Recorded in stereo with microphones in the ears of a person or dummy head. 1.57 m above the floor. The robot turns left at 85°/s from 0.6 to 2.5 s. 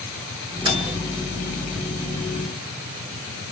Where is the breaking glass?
No breaking glass in this recording.